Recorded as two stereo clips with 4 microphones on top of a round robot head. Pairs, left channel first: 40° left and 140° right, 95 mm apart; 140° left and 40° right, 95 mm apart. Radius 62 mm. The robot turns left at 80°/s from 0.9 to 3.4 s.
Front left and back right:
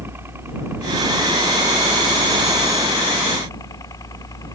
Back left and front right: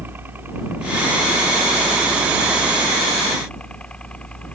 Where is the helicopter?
95° right; by 4.5 s 70° left.